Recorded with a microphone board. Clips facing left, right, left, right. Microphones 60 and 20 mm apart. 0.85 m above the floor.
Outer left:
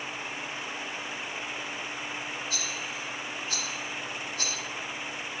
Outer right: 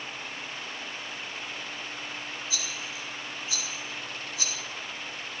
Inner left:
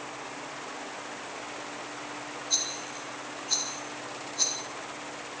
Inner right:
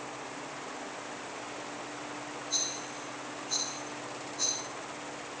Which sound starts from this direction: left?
A rattle, at 2.5 s.